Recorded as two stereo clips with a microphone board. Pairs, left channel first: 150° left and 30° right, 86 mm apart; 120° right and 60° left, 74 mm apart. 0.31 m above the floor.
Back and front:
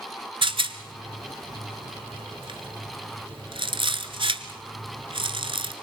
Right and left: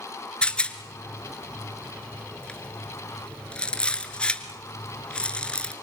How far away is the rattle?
About 1.5 m.